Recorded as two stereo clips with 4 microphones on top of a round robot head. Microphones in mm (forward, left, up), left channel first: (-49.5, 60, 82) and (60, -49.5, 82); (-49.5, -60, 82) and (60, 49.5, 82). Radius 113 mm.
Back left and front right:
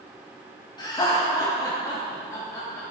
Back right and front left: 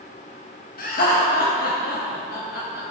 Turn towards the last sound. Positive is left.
turn(degrees=-150)